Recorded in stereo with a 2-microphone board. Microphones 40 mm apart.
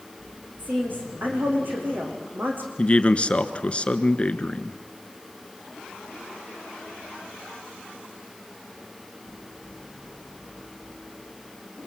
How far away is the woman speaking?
About 8 m.